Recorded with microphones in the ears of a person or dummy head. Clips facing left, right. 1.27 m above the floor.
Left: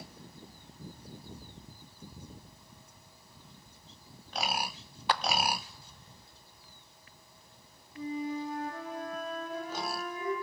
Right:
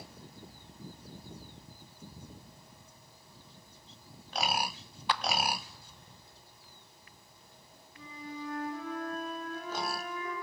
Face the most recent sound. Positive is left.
turn(degrees=85)